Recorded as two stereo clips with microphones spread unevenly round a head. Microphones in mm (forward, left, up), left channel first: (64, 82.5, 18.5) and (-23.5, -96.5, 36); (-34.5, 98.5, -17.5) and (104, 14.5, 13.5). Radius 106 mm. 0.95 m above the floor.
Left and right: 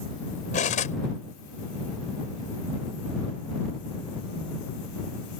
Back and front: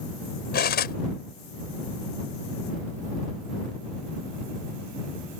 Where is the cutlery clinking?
125° left.